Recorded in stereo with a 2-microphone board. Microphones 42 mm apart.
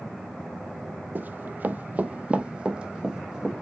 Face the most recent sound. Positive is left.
turn(degrees=-20)  # may be behind; listen again after turning